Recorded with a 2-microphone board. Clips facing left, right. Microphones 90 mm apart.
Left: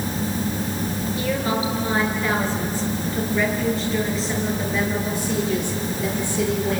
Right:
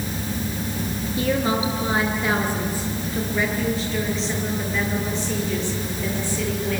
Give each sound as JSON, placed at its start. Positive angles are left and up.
{"t": 1.2, "sound": "a woman speaking", "side_deg": -25, "distance_m": 6.5}